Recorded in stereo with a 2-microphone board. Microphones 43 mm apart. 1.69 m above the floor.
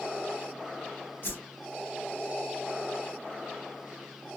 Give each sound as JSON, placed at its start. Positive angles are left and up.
{"t": 1.2, "sound": "a whoosh", "side_deg": 55, "distance_m": 0.8}